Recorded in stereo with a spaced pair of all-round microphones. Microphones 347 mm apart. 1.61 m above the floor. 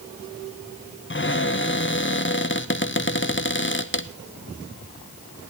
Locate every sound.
1.1 s a cupboard door: 35° left (ahead or behind), 0.7 m